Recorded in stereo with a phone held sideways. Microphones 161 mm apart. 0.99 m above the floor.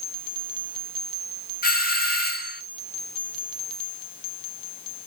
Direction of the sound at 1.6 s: 70° left (ahead or behind).